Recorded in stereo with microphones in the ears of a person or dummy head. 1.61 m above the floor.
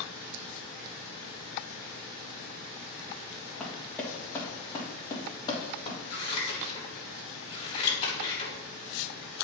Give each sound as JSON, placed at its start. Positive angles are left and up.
{"t": 3.6, "sound": "running footsteps", "side_deg": 0, "distance_m": 3.5}
{"t": 6.1, "sound": "scissors", "side_deg": 30, "distance_m": 3.5}